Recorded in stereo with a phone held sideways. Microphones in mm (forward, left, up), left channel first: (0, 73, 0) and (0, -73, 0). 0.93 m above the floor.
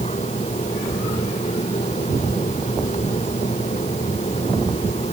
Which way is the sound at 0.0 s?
50° left (ahead or behind).